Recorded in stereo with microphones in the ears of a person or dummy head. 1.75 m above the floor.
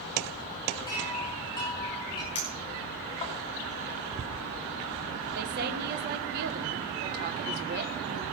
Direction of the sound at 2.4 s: 30° left (ahead or behind).